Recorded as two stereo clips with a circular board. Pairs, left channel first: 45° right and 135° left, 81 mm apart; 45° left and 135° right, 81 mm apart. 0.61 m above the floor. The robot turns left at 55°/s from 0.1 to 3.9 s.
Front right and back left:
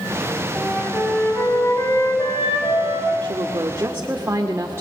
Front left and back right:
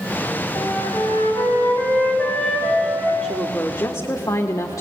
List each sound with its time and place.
0.6 s a flute: 65° left, 5.5 m; by 3.1 s 75° right, 5.5 m
3.2 s a woman speaking: 120° left, 1.5 m; by 4.8 s 85° left, 1.5 m